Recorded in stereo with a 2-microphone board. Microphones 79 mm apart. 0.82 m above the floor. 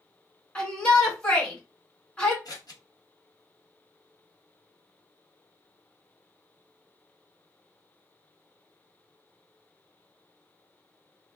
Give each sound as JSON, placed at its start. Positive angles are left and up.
{"t": 0.6, "sound": "a shout", "side_deg": 15, "distance_m": 1.8}
{"t": 2.5, "sound": "scissors", "side_deg": 55, "distance_m": 1.0}